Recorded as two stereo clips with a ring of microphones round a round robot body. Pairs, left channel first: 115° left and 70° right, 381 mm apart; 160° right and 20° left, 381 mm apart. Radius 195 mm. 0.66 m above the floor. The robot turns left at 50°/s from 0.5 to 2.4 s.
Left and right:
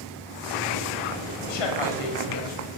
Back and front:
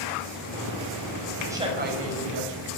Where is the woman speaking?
110° left, 4.5 m; by 2.7 s 60° left, 4.5 m.